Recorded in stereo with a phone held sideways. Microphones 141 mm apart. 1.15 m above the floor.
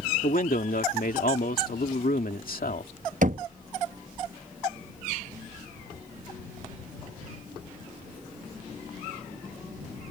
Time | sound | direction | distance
0.2 | a man speaking | 75° left (ahead or behind) | ?
3.2 | knocking | 60° right (ahead or behind) | ?